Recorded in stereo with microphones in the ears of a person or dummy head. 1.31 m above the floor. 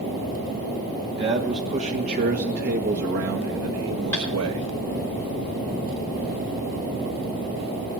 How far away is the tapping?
About 5 m.